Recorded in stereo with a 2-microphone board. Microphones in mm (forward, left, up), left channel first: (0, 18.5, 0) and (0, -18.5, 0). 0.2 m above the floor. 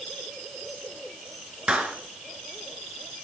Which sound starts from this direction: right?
A clap, at 1.7 s.